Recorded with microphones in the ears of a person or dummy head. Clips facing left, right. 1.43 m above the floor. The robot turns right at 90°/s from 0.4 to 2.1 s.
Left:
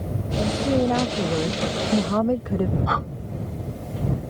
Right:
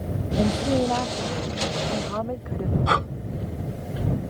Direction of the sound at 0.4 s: 20° right.